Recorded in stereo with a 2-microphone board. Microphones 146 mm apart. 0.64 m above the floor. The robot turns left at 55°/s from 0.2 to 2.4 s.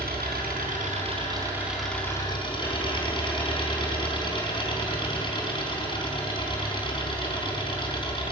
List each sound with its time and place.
0.0 s an engine running: 90° right, 4 m; by 8.3 s 150° left, 4 m